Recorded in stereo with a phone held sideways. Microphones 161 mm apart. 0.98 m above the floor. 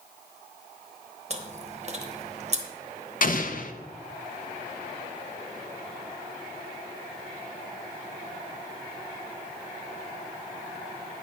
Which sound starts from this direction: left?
An explosion, at 3.2 s.